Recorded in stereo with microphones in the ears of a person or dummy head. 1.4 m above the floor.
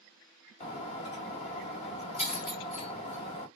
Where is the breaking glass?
35° left (ahead or behind), 1.6 m.